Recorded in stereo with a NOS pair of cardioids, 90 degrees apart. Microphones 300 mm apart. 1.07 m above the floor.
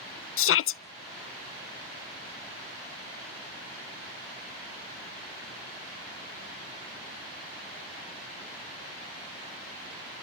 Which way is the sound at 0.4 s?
50° left.